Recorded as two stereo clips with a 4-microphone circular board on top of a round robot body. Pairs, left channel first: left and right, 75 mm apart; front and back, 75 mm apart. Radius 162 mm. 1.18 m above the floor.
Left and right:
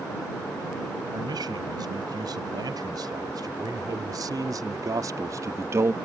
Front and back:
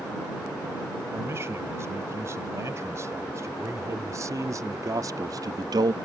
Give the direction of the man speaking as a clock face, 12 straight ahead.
4 o'clock.